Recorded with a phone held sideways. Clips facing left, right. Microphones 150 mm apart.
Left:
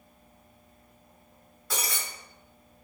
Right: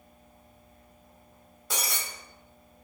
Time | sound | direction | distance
1.7 | breaking glass | 20° right (ahead or behind) | 1.1 m